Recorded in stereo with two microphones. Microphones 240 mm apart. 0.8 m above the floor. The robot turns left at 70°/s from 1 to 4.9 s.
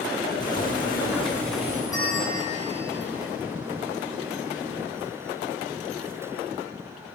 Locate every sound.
0.4 s boiling: 40° left, 4 m; by 1.8 s 20° right, 4 m
1.9 s a bell: 165° left, 6 m; by 2.9 s 95° left, 6 m